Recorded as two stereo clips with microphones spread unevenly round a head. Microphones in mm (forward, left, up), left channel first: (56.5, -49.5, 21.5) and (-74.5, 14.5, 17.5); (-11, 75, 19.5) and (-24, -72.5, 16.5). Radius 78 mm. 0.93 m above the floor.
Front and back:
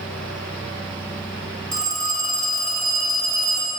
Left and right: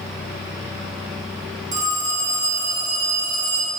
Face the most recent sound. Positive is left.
turn(degrees=-135)